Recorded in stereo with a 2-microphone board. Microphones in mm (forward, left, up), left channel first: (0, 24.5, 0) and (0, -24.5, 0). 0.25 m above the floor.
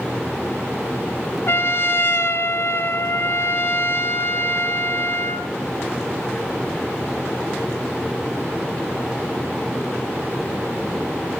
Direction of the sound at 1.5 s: 55° left (ahead or behind).